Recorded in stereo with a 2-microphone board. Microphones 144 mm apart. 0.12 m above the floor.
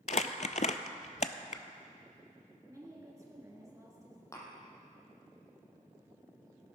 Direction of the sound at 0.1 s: 60° left (ahead or behind).